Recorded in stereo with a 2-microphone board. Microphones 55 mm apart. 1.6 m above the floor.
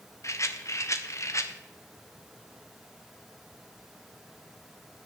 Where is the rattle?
60° left (ahead or behind), 1.1 m.